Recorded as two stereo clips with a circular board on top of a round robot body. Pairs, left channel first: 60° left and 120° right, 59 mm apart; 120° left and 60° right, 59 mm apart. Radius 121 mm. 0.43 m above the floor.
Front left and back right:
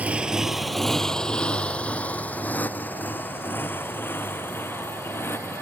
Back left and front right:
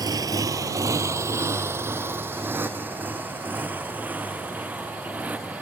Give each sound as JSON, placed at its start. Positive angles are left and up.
{"t": 0.0, "sound": "a motorcycle", "azimuth_deg": -50}